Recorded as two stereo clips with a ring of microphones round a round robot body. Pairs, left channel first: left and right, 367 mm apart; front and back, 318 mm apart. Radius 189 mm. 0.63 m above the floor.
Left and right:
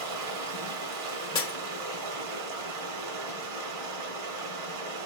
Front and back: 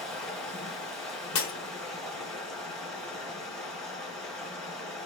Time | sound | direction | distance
0.0 | running water | 85° right | 1.1 m
1.4 | breaking glass | 10° left | 1.6 m